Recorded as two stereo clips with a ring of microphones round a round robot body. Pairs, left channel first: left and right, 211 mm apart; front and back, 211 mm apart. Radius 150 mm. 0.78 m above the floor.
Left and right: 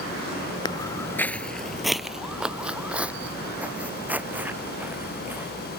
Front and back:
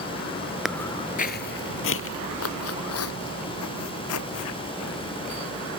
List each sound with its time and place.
0.7 s footsteps: 95° left; by 5.5 s 10° right